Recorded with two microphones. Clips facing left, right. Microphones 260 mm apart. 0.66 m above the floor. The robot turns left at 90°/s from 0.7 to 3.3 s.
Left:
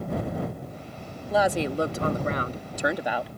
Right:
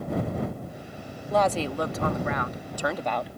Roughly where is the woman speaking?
Behind.